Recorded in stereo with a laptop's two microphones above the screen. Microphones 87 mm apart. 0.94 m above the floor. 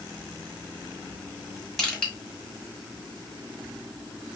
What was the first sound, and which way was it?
Crushing, 5° left (ahead or behind).